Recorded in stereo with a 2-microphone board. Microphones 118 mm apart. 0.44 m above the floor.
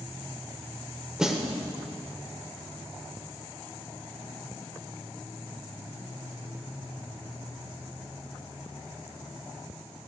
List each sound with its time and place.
1.2 s a snare drum: 5° right (ahead or behind), 1.3 m